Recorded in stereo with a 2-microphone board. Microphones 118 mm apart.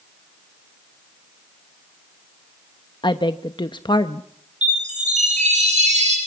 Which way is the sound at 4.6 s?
80° right.